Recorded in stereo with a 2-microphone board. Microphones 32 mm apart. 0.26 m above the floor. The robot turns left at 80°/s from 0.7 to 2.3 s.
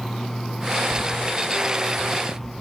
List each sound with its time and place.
0.9 s footsteps: 70° left (ahead or behind), 0.6 m; by 2.5 s 20° left (ahead or behind), 2.5 m